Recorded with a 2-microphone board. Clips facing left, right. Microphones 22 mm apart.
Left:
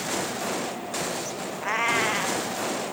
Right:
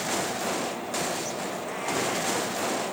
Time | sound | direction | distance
1.6 | a cat meowing | 45° left (ahead or behind) | 1.6 m